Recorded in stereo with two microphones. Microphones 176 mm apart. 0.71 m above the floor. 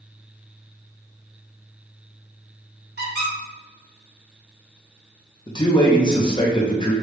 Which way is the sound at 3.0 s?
70° right (ahead or behind).